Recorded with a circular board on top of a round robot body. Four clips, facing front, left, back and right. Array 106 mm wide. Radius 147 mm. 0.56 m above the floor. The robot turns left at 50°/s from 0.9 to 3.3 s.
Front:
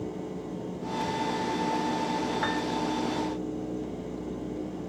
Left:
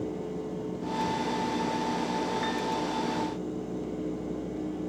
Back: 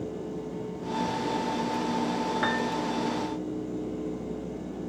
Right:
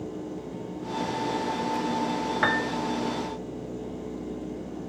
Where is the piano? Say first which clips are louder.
Right 4 dB, back 1 dB; 95° right; by 2.8 s 110° right.